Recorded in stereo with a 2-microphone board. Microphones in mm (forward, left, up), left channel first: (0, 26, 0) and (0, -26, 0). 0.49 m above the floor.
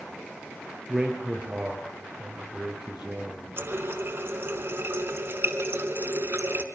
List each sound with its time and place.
0.9 s a man speaking: 10° right (ahead or behind), 7 m
3.6 s a running tap: 50° right (ahead or behind), 3.5 m